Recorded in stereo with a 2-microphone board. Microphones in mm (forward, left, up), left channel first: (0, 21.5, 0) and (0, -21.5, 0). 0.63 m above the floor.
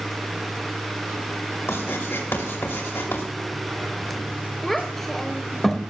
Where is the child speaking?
5° left (ahead or behind), 1.6 m.